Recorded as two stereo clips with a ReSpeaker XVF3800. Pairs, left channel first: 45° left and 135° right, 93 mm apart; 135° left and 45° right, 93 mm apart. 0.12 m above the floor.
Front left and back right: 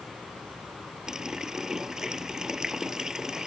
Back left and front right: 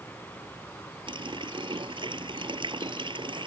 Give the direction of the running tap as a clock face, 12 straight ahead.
2 o'clock.